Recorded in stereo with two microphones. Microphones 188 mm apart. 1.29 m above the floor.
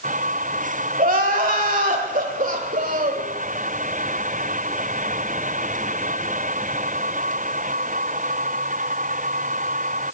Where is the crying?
45° right (ahead or behind), 1.7 m.